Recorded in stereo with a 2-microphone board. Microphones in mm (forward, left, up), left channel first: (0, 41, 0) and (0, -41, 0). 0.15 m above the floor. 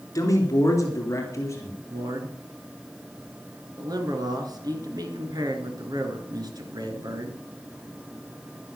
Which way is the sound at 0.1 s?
45° left (ahead or behind).